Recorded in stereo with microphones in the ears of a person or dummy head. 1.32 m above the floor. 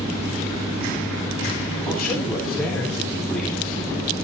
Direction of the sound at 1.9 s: 5° left (ahead or behind).